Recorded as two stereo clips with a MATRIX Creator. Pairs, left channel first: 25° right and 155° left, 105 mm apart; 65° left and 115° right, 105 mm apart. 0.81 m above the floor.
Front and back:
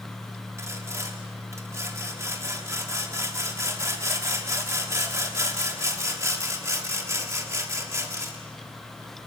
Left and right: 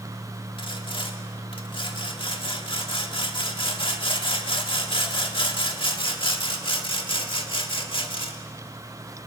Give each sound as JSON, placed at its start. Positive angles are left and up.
{"t": 0.6, "sound": "sawing", "azimuth_deg": 95, "distance_m": 1.9}